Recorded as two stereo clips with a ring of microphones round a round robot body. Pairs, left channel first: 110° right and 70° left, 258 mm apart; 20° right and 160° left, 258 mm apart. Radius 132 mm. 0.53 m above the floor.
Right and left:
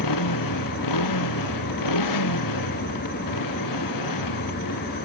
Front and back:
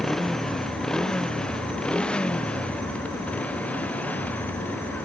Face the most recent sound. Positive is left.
turn(degrees=-105)